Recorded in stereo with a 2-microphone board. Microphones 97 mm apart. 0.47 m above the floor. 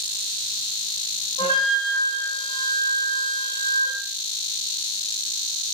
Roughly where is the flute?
Left.